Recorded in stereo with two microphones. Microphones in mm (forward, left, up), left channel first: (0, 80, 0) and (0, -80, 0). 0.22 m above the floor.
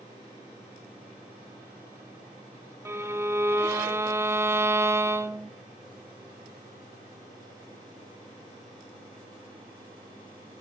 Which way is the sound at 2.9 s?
15° right (ahead or behind).